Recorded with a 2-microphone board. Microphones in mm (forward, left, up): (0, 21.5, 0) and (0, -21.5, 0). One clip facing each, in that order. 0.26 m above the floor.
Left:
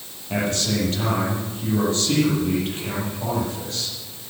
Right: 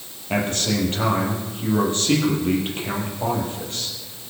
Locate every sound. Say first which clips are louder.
0.3 s a man speaking: right 1 dB; 40° right (ahead or behind), 7.5 m